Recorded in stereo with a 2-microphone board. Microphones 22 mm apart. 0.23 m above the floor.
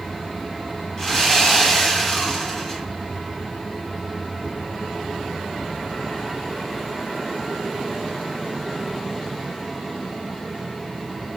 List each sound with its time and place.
1.0 s sawing: 30° left (ahead or behind), 1.5 m